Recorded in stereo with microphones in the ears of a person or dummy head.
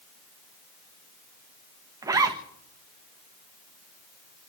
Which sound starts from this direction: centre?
A zipper, at 2.0 s.